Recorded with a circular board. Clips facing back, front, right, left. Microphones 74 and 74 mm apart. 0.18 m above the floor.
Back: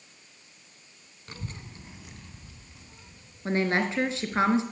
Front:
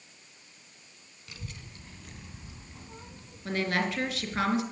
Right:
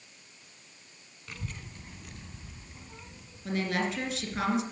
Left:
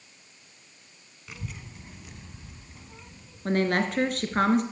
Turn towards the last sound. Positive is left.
turn(degrees=120)